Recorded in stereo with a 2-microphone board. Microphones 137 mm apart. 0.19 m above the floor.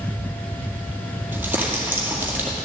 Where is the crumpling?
15° right (ahead or behind), 2 m.